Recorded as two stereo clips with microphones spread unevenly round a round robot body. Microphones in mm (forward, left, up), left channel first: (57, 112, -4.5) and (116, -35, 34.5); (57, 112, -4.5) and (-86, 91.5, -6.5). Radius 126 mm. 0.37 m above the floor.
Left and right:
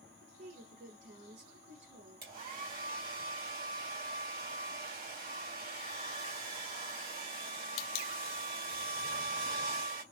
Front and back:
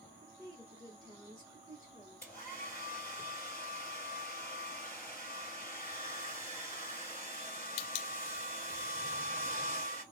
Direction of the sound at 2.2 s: 70° right.